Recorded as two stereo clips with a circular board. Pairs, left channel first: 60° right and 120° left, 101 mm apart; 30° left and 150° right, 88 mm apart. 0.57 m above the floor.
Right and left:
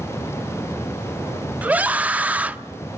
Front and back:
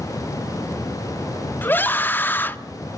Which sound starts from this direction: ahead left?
A scream, at 1.6 s.